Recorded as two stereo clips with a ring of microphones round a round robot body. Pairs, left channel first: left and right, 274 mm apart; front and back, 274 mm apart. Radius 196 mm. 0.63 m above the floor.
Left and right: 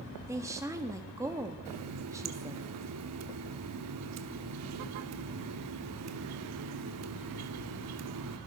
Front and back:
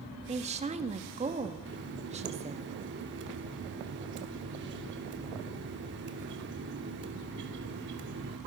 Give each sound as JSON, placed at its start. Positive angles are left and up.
{"t": 0.3, "sound": "a woman speaking", "azimuth_deg": -155, "distance_m": 1.2}
{"t": 1.6, "sound": "a running tap", "azimuth_deg": -125, "distance_m": 0.8}